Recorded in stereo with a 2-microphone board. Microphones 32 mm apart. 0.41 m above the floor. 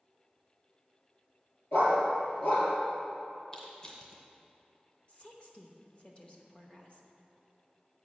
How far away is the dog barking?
About 2.5 m.